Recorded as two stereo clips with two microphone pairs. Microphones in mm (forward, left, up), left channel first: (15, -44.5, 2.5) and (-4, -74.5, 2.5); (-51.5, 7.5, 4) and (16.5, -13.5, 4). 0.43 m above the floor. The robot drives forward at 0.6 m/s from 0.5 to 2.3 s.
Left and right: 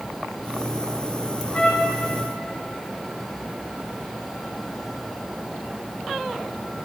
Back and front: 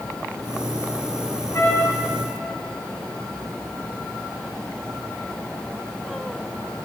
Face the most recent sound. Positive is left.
turn(degrees=130)